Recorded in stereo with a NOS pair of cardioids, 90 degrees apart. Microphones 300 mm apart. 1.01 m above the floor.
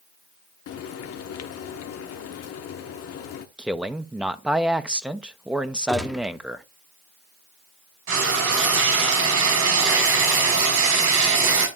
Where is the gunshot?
Straight ahead, 1.1 m.